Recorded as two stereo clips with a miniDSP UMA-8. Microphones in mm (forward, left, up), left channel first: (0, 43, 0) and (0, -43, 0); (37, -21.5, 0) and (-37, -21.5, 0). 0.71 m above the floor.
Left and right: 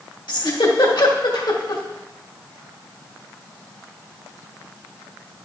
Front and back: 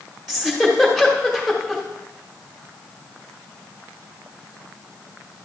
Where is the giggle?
95° left, 1.6 m.